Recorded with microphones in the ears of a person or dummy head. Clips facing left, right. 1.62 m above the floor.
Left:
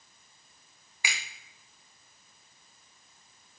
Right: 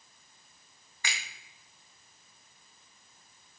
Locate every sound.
1.0 s a finger snap: 10° left (ahead or behind), 0.7 m